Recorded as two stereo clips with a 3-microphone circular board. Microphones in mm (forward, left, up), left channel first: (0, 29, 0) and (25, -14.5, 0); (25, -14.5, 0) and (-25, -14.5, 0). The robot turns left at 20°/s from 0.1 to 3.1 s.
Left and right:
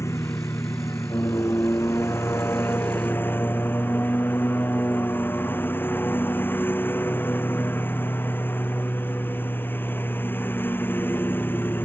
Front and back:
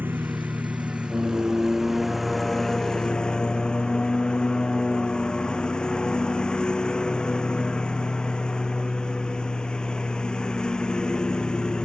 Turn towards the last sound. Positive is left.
turn(degrees=75)